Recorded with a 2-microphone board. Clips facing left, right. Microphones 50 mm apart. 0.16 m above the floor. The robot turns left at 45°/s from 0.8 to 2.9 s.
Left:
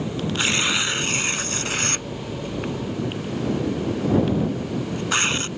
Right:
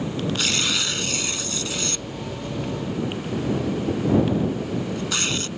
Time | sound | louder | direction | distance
0.4 | tearing paper | left 3 dB | 25° left (ahead or behind) | ?